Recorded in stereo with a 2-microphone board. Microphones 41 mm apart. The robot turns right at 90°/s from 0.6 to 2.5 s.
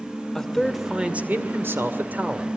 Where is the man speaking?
170° left, 2 m; by 2.5 s 20° right, 2 m.